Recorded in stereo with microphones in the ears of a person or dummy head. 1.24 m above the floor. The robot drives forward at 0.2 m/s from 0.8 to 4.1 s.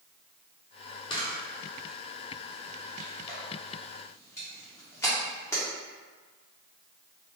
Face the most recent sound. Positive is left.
turn(degrees=10)  # may be behind; listen again after turning